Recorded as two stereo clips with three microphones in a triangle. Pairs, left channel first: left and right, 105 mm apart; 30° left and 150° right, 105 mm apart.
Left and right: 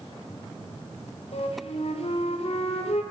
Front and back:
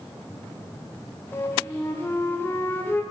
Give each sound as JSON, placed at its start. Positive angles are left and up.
{"t": 1.3, "sound": "a flute", "azimuth_deg": 95, "distance_m": 0.7}